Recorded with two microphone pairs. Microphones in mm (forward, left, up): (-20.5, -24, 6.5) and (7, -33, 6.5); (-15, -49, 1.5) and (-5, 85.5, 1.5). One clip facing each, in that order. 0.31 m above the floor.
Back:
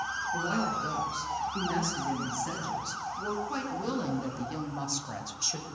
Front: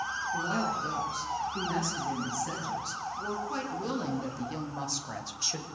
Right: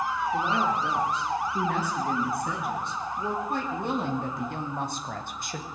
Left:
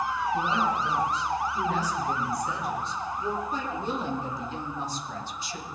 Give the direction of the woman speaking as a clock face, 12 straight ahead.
4 o'clock.